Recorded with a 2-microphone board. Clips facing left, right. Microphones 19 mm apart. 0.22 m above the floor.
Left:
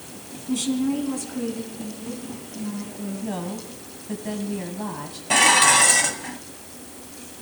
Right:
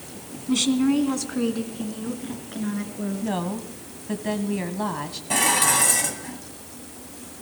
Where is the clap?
No clap in this recording.